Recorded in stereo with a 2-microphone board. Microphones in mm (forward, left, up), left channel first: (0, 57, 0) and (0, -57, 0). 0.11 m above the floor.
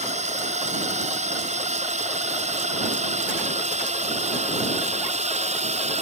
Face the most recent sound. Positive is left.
turn(degrees=-65)  # may be behind; listen again after turning